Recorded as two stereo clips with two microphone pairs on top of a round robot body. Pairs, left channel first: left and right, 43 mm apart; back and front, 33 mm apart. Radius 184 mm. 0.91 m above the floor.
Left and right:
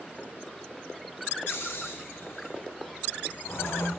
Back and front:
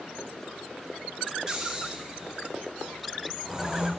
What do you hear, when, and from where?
1.5 s snoring: 70° left, 1.9 m